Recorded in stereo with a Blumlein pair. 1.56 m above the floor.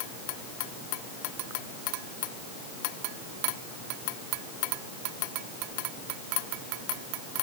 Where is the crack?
I don't hear a crack.